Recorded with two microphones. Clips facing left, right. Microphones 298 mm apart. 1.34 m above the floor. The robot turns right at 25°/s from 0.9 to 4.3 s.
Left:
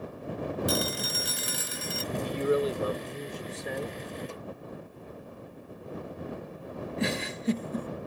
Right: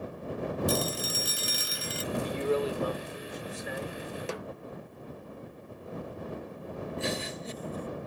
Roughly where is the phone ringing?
Left.